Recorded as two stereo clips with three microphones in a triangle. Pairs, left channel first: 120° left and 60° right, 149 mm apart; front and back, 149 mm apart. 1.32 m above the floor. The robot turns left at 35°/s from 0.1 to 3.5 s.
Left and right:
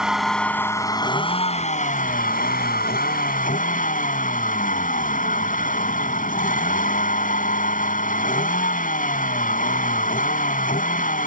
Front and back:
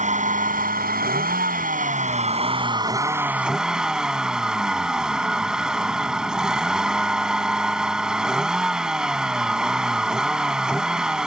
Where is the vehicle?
145° right; by 11.3 s 95° left.